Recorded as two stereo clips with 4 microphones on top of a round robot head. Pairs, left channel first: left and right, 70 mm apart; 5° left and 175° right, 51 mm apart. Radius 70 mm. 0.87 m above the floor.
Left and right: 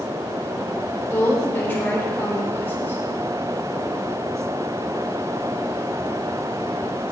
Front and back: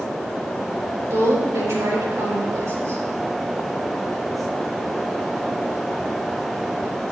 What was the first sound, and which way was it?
A woman speaking, 160° left.